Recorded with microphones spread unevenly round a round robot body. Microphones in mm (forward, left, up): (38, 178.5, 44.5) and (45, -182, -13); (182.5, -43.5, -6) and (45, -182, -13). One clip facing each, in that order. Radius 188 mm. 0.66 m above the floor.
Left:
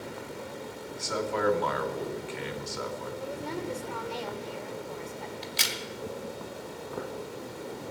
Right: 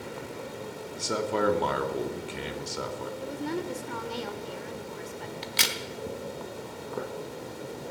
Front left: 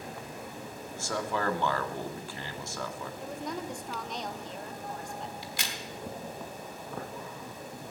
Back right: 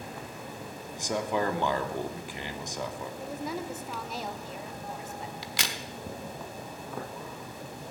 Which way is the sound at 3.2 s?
55° right.